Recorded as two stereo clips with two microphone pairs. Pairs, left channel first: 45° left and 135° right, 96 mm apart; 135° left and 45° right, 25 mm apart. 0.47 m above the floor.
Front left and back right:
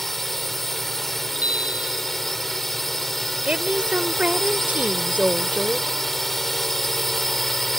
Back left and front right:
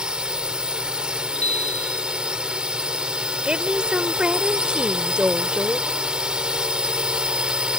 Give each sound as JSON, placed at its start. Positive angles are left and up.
{"t": 0.0, "sound": "a drone", "azimuth_deg": -45}
{"t": 1.4, "sound": "a bicycle bell", "azimuth_deg": 145}
{"t": 3.4, "sound": "a woman speaking", "azimuth_deg": -65}